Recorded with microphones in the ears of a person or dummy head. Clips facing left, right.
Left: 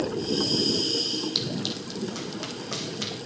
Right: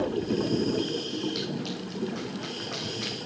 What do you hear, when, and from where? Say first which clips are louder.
1.4 s running footsteps: left 1 dB; 50° left (ahead or behind), 3.5 m